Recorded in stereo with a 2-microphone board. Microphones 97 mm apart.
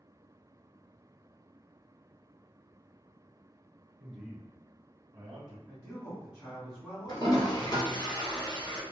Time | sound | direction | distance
4.0 | a man speaking | 5° left (ahead or behind) | 1.3 m
5.7 | a man speaking | 5° left (ahead or behind) | 1.8 m
7.1 | a toilet flushing | 45° left (ahead or behind) | 1.2 m